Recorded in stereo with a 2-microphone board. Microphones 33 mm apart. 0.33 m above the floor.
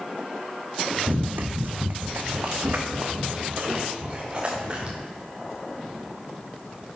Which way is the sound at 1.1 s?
60° right (ahead or behind).